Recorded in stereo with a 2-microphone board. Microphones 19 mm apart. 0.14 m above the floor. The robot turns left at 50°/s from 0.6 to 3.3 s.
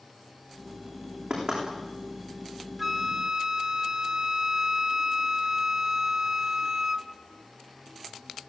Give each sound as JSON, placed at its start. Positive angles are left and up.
{"t": 1.3, "sound": "knocking", "side_deg": -60, "distance_m": 10.0}
{"t": 2.8, "sound": "a flute", "side_deg": -10, "distance_m": 0.9}